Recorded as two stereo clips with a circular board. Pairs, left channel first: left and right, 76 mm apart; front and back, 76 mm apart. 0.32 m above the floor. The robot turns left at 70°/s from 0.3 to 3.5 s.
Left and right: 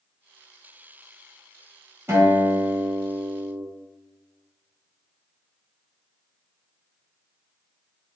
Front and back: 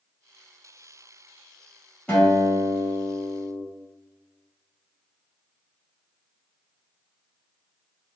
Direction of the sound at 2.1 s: 60° right.